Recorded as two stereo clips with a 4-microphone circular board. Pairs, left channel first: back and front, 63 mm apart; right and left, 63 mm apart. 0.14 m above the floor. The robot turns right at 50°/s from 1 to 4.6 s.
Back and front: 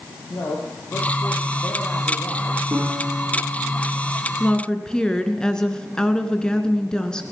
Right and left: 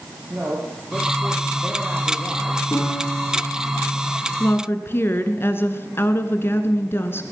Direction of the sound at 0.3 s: 150° left.